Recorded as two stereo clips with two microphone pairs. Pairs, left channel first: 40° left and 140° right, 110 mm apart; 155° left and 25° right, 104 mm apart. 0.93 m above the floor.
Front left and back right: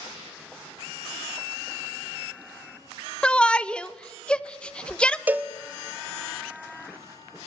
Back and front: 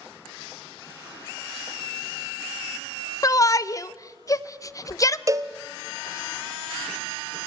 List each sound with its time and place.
3.2 s a shout: 115° left, 0.8 m
5.3 s a cowbell: 75° right, 0.9 m